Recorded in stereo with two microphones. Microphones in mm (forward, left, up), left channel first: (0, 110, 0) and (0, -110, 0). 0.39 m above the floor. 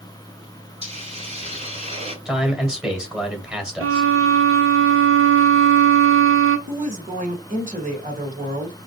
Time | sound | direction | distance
0.8 | a hiss | 30° right (ahead or behind) | 2 m
2.2 | a man speaking | 5° right (ahead or behind) | 1.7 m
3.8 | a violin | 75° right (ahead or behind) | 0.7 m
6.7 | a woman speaking | 35° right (ahead or behind) | 1.5 m